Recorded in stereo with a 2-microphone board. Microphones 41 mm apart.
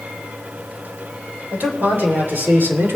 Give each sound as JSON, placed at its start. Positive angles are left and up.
{"t": 1.5, "sound": "a man speaking", "side_deg": -50, "distance_m": 3.5}